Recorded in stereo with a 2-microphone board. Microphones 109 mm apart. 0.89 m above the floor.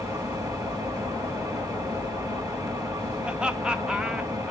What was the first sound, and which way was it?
An engine running, 35° right (ahead or behind).